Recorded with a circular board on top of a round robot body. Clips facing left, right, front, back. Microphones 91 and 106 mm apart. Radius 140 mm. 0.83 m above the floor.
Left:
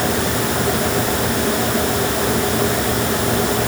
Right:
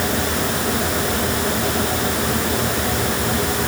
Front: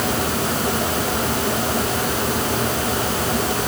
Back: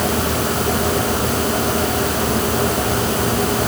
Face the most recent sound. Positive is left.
No sound to turn to.